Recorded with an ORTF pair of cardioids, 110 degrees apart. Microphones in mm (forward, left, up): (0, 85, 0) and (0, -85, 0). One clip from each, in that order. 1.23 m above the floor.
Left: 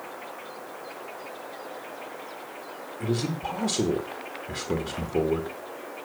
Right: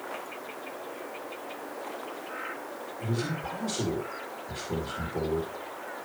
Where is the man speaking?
45° left, 2.5 m.